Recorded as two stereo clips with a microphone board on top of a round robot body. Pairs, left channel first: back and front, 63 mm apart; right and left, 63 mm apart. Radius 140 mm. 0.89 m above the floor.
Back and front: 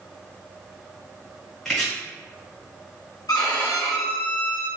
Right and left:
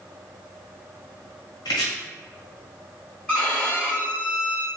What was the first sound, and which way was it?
Chopping, 100° right.